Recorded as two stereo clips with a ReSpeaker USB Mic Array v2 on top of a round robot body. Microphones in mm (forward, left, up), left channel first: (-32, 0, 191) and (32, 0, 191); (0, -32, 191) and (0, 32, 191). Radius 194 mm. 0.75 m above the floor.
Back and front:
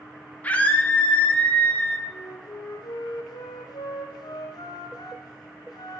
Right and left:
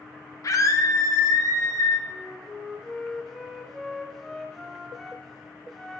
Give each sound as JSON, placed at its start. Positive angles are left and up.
{"t": 0.4, "sound": "a scream", "azimuth_deg": -115, "distance_m": 2.5}
{"t": 2.1, "sound": "a flute", "azimuth_deg": -175, "distance_m": 0.7}